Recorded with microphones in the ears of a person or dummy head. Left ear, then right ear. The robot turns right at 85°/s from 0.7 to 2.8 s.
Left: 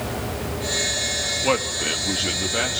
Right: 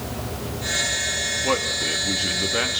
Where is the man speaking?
85° left, 2 m; by 2.8 s 155° right, 2 m.